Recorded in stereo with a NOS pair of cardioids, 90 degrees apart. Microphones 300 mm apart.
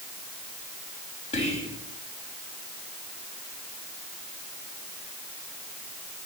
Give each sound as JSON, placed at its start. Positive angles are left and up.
{"t": 1.3, "sound": "whispering", "azimuth_deg": 20, "distance_m": 3.5}